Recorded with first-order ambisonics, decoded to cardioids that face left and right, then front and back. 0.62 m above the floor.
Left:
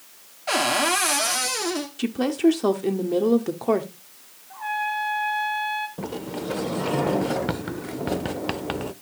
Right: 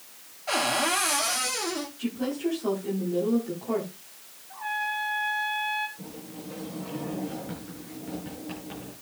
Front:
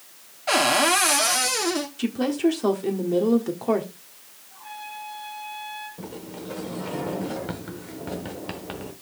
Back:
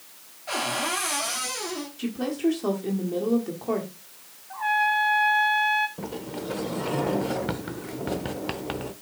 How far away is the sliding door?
About 0.8 m.